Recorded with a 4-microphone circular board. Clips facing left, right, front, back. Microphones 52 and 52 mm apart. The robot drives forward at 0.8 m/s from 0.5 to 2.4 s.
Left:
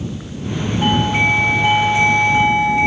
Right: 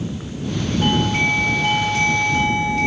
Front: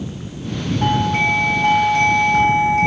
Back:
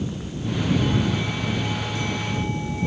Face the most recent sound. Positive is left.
turn(degrees=20)